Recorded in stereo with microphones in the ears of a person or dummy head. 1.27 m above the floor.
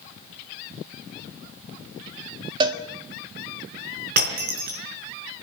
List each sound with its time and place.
2.6 s a cowbell: 25° right (ahead or behind), 1.8 m
4.2 s breaking glass: 50° right (ahead or behind), 4 m